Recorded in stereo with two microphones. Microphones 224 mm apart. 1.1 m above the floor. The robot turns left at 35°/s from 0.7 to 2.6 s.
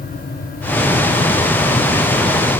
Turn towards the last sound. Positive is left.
No sound to turn to.